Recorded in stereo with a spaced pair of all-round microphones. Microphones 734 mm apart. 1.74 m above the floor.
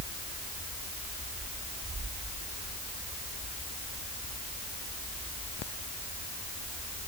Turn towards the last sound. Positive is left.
No sound to turn to.